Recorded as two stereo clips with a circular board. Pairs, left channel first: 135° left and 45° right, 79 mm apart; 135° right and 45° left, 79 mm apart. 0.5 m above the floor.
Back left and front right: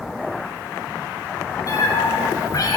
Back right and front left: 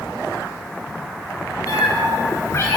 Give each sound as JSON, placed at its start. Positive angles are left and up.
{"t": 1.7, "sound": "a cat meowing", "azimuth_deg": 180, "distance_m": 4.5}